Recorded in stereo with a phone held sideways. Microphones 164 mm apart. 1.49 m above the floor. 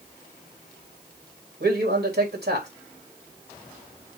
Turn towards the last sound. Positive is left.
turn(degrees=-85)